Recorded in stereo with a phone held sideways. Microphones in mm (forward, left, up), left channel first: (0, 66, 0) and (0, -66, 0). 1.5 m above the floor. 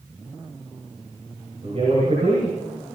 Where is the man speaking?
55° right (ahead or behind), 5.5 m.